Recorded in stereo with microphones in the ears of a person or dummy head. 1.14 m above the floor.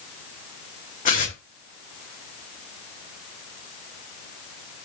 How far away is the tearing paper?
About 1.3 m.